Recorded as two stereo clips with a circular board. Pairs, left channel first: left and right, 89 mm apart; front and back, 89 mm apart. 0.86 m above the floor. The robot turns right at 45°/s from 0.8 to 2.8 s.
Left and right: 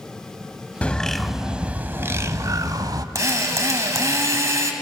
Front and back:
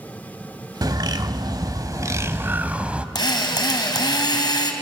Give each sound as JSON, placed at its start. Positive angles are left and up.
{"t": 0.8, "sound": "a bird", "azimuth_deg": 160, "distance_m": 0.9}
{"t": 3.1, "sound": "a drill", "azimuth_deg": -35, "distance_m": 2.5}